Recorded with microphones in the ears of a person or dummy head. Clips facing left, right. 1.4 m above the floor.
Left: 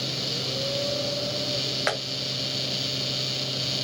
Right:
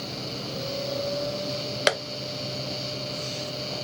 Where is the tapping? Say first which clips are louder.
Right 5 dB; 45° right (ahead or behind), 0.6 m.